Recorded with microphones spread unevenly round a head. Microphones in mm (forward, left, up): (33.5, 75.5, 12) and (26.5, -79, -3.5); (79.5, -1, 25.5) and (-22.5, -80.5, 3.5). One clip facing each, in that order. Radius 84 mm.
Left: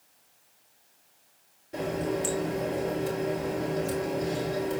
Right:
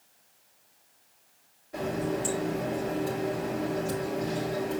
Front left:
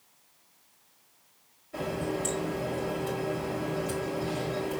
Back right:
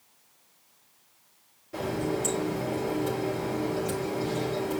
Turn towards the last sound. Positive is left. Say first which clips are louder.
# left 1 dB, back right 2 dB
turn(degrees=155)